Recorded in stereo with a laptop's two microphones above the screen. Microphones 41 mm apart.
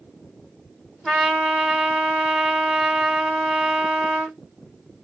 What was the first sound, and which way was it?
A trumpet, 15° left (ahead or behind).